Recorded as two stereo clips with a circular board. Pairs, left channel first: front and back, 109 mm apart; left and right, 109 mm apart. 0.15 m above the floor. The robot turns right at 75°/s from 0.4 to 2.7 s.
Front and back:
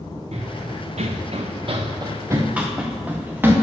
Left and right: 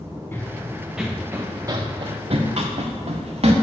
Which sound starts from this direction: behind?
Running footsteps, at 0.3 s.